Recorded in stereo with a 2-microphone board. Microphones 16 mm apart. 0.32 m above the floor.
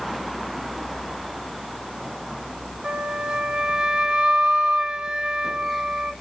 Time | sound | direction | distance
2.8 | a flute | 60° right (ahead or behind) | 0.9 m